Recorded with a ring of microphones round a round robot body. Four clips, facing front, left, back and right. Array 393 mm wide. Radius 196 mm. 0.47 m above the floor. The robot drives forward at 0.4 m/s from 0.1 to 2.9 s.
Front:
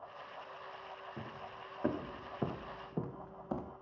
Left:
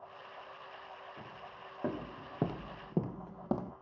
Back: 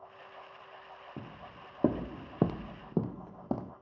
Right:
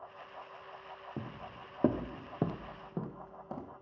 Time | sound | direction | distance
1.2 | footsteps | 115° right | 1.7 m